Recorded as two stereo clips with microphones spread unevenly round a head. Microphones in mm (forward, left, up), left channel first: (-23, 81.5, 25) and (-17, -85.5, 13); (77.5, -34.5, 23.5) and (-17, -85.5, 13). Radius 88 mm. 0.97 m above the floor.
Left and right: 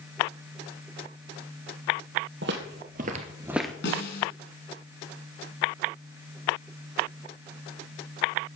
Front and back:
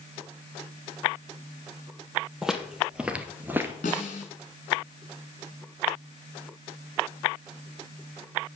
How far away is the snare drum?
About 3 m.